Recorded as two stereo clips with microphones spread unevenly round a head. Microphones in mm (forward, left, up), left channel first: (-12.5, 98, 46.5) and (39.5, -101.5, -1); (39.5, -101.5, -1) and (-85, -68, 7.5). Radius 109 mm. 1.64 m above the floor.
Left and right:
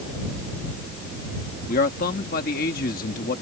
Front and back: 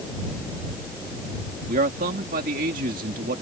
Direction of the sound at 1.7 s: 150° left.